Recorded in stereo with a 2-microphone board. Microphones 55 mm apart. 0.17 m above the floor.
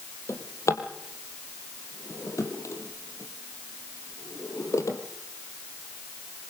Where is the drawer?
60° left (ahead or behind), 3 m.